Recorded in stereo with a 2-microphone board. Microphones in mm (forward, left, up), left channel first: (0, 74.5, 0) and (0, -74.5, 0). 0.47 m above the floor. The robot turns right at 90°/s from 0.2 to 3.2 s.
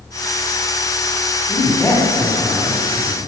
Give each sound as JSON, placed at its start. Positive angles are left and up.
{"t": 1.5, "sound": "a man speaking", "azimuth_deg": 125, "distance_m": 1.3}